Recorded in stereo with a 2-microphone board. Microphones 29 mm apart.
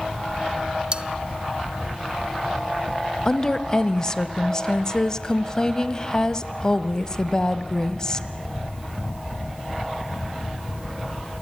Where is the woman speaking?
20° left (ahead or behind), 1.1 m.